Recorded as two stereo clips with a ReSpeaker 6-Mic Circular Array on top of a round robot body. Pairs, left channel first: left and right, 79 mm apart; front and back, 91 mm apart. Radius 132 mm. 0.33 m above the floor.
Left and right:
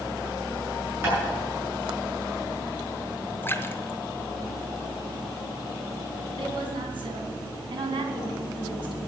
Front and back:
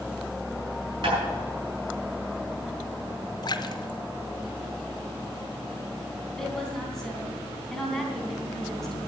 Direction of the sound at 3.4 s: 30° left.